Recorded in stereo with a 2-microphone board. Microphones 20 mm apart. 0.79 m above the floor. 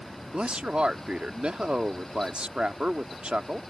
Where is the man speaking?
60° right (ahead or behind).